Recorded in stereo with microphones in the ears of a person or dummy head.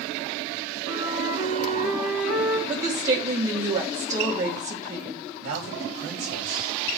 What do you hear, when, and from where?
0.8 s a flute: 55° left (ahead or behind), 2.5 m
2.7 s a woman speaking: 20° right (ahead or behind), 1.9 m
5.4 s a man speaking: 60° right (ahead or behind), 3.5 m